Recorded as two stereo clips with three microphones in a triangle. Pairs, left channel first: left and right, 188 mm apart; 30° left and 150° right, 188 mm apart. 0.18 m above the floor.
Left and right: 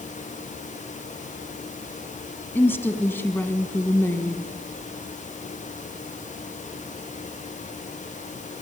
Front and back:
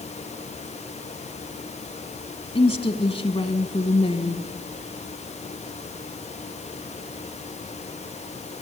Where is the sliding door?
I don't hear a sliding door.